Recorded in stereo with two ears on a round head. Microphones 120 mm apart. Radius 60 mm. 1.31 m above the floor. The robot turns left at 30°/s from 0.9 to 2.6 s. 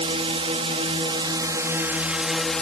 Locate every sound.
0.0 s a drone: 135° right; by 2.6 s 175° left